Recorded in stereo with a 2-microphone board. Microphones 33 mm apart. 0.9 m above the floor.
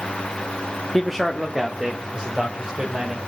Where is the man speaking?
5° left (ahead or behind), 1.4 m; by 3.2 s 30° right (ahead or behind), 3.5 m.